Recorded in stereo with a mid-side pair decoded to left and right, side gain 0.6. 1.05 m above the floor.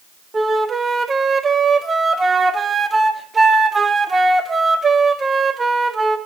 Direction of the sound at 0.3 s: 20° right.